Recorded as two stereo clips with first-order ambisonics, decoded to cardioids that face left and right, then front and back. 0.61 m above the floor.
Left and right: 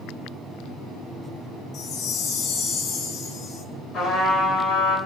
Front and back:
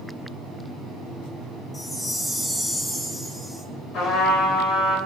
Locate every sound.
1.7 s a chime: 80° left, 0.5 m
3.9 s a trumpet: 30° left, 2.5 m